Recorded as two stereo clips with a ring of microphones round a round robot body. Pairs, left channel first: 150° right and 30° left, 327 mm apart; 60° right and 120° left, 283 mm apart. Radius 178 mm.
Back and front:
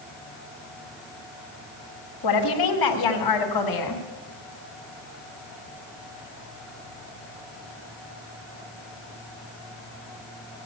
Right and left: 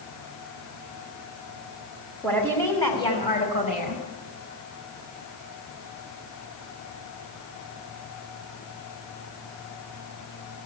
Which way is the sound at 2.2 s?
145° right.